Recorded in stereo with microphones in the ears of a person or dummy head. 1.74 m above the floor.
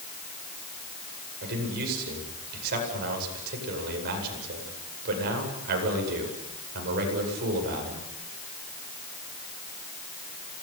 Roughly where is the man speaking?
Right.